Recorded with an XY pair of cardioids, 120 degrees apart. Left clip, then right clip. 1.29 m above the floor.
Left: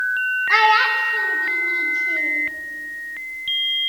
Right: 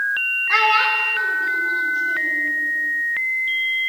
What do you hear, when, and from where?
0.5 s a child speaking: 20° left, 0.9 m; by 2.4 s 35° left, 2.0 m